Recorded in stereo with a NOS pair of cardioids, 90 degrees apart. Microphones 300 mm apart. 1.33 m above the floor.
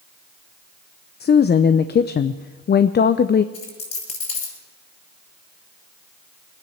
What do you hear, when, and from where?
1.2 s a woman speaking: 35° left, 0.6 m
3.5 s a dropped coin: 55° left, 7.5 m